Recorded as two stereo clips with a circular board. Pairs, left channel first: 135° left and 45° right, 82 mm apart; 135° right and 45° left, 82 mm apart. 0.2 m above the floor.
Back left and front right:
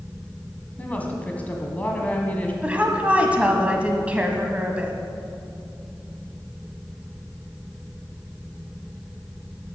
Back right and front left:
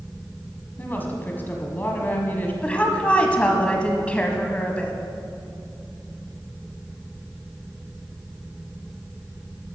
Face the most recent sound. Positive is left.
turn(degrees=-90)